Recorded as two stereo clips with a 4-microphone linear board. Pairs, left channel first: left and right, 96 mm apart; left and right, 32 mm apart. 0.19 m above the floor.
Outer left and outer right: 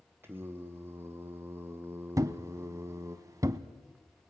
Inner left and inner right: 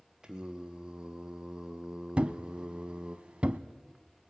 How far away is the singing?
About 1.8 m.